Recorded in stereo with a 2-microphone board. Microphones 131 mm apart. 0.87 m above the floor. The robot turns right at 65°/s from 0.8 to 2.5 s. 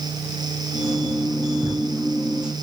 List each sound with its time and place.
1.6 s a drawer: 60° left (ahead or behind), 3 m; by 1.7 s 50° left (ahead or behind), 3 m